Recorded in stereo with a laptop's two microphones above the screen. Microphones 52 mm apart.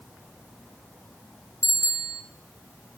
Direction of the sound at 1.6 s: 85° left.